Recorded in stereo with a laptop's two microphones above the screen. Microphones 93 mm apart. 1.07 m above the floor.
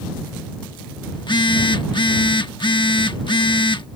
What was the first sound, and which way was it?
A phone buzzing, 55° left (ahead or behind).